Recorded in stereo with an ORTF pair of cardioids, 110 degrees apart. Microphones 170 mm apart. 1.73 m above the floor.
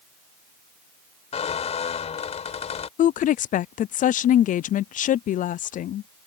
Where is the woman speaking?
50° left.